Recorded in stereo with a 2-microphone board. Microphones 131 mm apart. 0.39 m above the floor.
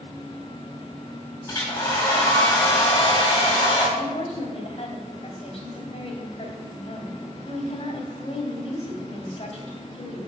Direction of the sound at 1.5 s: 25° left (ahead or behind).